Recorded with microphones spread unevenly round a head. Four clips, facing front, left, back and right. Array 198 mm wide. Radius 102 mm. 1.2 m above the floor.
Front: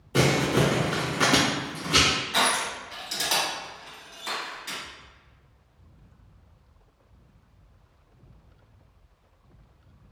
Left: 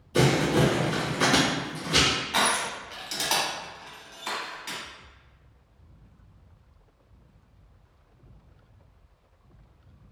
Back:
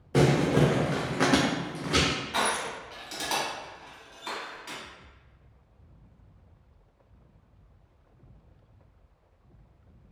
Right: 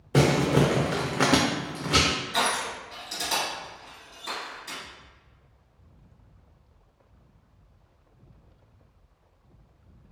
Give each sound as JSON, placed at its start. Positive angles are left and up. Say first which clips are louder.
{"t": 0.1, "sound": "crumpling", "louder": "right 1 dB, even", "azimuth_deg": -90, "distance_m": 0.6}
{"t": 2.3, "sound": "crushing", "louder": "left 2 dB, front 4 dB", "azimuth_deg": 75, "distance_m": 1.6}